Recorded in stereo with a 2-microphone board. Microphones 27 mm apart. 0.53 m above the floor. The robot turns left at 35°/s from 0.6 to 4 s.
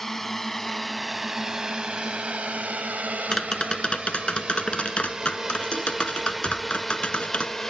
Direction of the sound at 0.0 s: 15° left (ahead or behind).